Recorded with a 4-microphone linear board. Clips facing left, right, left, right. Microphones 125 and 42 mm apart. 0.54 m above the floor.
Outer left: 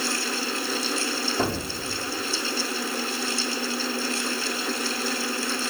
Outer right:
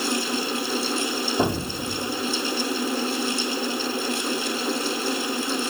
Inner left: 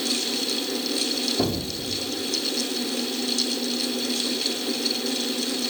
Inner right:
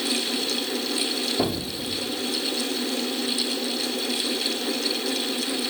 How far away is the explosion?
About 1.5 m.